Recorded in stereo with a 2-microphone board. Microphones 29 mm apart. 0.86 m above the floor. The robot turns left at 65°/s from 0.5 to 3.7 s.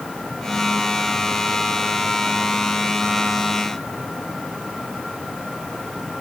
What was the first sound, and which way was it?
Only background noise.